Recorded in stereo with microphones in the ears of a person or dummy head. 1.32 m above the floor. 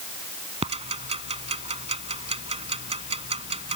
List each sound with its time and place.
0.6 s ticking: 35° right (ahead or behind)